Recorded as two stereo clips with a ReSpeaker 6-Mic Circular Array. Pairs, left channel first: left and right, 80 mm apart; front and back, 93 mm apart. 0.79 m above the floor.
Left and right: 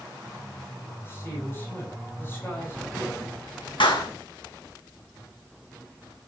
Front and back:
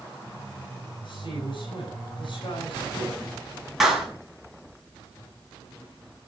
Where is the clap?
95° left, 5 m.